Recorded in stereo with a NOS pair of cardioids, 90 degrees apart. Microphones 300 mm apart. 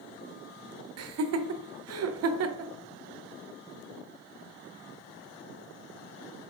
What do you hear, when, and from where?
1.0 s laughter: 50° right, 0.7 m